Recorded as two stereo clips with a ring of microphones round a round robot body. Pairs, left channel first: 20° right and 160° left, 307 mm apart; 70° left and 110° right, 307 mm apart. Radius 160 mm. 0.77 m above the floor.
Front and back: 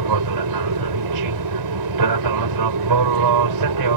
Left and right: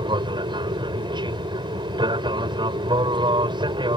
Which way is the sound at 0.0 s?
175° left.